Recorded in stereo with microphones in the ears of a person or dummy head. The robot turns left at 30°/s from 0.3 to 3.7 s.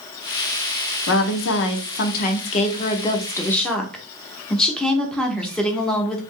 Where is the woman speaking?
80° left, 0.8 m; by 6.2 s straight ahead, 0.8 m.